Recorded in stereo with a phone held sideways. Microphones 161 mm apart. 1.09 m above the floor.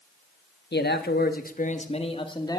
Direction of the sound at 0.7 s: 85° left.